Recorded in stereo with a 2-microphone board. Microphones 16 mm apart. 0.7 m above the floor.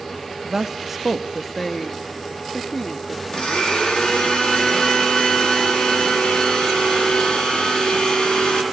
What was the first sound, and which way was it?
A woman speaking, 35° right (ahead or behind).